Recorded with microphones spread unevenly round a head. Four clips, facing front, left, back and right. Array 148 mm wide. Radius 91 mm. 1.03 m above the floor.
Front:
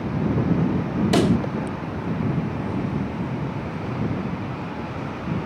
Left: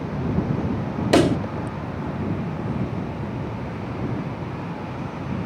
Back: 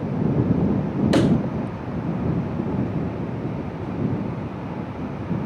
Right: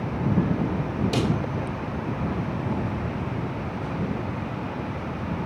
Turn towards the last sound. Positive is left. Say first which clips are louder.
# left 10 dB, back 1 dB
turn(degrees=115)